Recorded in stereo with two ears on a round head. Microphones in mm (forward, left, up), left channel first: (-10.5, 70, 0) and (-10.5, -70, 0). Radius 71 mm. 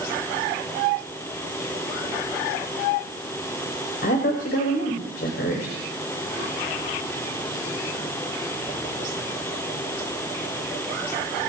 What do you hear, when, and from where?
4.0 s a woman speaking: 75° left (ahead or behind), 3.5 m